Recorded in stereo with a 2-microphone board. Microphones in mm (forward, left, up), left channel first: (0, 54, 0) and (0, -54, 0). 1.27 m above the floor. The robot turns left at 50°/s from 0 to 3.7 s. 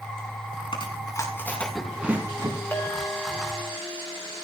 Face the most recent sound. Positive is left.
turn(degrees=-35)